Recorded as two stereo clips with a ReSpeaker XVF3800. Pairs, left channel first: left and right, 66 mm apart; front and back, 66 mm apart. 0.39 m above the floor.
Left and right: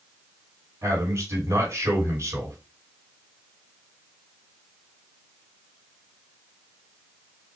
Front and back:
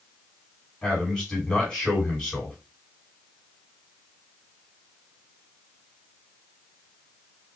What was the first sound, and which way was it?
A man speaking, 85° right.